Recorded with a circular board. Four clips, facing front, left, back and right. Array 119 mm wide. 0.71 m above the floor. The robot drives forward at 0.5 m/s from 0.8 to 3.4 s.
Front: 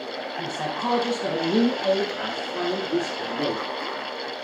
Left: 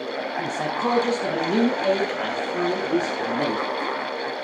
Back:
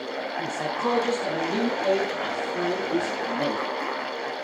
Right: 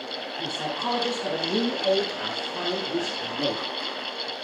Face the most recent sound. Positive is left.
turn(degrees=85)